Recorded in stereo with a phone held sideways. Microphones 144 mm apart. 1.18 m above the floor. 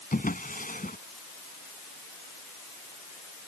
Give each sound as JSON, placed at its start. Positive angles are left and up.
{"t": 0.1, "sound": "a drawer", "side_deg": 80}